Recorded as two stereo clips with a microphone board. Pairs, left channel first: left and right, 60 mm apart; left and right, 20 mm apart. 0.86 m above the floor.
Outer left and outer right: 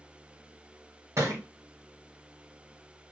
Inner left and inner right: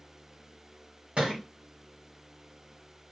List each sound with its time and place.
1.2 s a thud: 60° right (ahead or behind), 2 m